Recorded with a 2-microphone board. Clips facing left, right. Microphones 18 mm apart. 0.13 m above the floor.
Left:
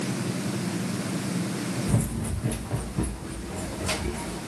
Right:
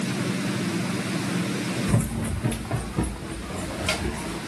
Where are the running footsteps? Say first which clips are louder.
Right 2 dB; 30° right (ahead or behind), 0.5 m; by 4.4 s 50° right (ahead or behind), 1.9 m.